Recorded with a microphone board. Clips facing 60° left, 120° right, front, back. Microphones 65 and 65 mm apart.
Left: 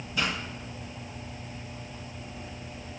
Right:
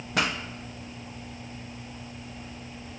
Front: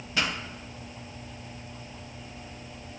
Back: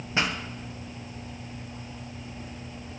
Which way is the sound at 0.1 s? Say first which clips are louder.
Right 3 dB, back 2 dB; 120° right.